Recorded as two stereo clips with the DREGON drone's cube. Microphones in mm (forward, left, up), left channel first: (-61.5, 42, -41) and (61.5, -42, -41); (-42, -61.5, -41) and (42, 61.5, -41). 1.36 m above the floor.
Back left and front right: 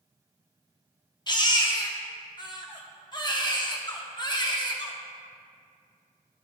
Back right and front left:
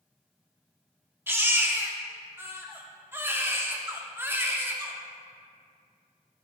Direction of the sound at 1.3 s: 115° left.